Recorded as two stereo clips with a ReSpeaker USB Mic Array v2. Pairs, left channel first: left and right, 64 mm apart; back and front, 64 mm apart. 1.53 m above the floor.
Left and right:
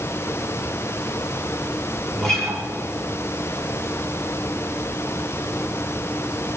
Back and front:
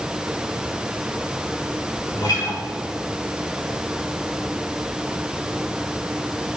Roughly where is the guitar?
Behind.